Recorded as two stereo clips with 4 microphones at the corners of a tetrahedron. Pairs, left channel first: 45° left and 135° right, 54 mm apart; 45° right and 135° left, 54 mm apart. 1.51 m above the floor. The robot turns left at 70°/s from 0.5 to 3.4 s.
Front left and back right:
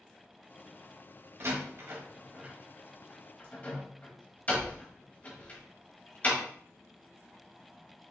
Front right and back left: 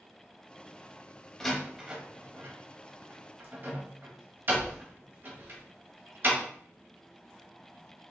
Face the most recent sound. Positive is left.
turn(degrees=95)